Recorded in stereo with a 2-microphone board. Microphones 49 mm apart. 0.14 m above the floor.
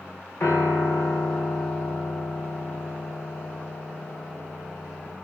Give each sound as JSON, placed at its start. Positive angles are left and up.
{"t": 0.4, "sound": "a piano", "side_deg": 65, "distance_m": 5.0}